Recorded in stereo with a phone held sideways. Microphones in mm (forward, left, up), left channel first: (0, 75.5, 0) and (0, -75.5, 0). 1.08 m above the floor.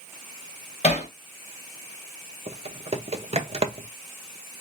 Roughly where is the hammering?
Left.